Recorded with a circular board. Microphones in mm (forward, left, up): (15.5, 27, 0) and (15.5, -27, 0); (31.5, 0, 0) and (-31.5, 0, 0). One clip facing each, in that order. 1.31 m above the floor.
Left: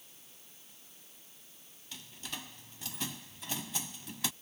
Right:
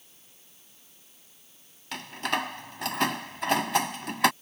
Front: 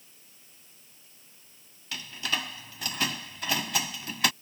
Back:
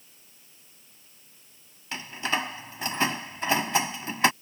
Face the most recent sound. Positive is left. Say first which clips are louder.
# right 16 dB, back 4 dB
turn(degrees=-115)